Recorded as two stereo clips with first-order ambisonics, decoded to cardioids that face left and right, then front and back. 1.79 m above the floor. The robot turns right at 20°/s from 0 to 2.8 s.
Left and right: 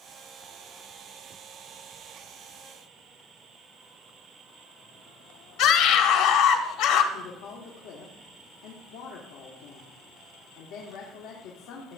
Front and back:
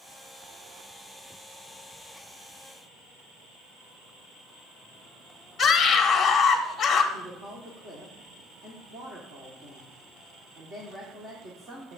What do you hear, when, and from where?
5.6 s a scream: 65° left, 1.3 m
7.1 s a woman speaking: 115° left, 1.3 m